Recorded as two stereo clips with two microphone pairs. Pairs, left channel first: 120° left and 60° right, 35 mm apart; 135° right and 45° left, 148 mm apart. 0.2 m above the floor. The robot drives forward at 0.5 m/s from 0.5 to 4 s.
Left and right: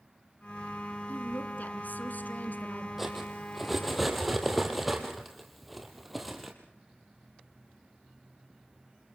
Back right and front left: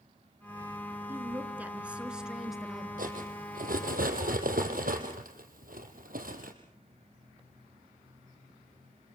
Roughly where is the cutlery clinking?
Ahead left.